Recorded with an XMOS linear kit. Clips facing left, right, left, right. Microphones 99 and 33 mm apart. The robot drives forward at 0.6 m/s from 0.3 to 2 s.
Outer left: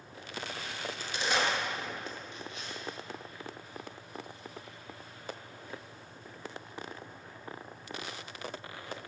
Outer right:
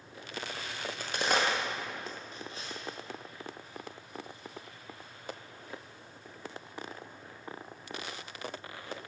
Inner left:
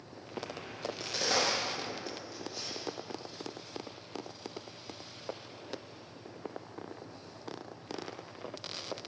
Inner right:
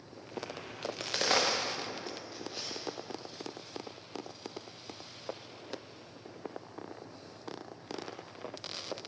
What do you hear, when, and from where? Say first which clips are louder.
0.8 s a crack: outer right 3 dB, inner right 2 dB; 65° right (ahead or behind), 0.8 m; by 2.8 s 35° right (ahead or behind), 1.3 m